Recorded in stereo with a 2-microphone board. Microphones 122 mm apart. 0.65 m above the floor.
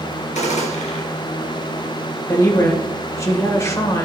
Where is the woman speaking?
25° left (ahead or behind), 3 m.